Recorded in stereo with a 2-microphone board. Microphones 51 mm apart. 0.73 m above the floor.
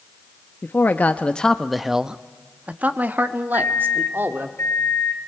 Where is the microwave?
60° left (ahead or behind), 3.5 m.